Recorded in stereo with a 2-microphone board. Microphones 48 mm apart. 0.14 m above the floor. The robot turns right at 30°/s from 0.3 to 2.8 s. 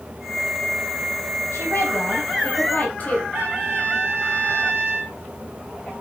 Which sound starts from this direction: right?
A trumpet, at 3.3 s.